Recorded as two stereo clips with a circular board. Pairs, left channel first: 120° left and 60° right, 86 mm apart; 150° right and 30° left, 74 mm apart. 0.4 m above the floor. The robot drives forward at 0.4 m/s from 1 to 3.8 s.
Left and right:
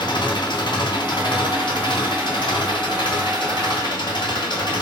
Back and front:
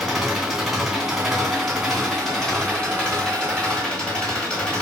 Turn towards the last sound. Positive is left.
turn(degrees=135)